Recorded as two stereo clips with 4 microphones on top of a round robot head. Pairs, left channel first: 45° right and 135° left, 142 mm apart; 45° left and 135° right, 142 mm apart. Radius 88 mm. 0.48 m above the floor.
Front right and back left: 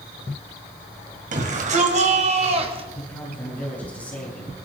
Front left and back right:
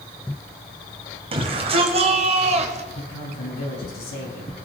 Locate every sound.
1.3 s a shout: 170° left, 2.5 m; by 2.9 s 175° right, 1.7 m
3.0 s a man speaking: 35° left, 8 m